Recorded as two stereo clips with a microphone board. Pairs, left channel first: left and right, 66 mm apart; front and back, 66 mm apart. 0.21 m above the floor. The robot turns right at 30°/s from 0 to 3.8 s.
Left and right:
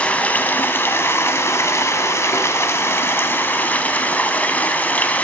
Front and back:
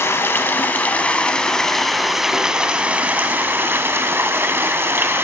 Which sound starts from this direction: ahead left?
Running water, at 0.0 s.